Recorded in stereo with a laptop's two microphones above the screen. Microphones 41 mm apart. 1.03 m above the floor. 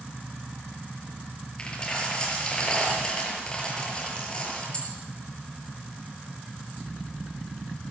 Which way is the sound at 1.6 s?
20° left (ahead or behind).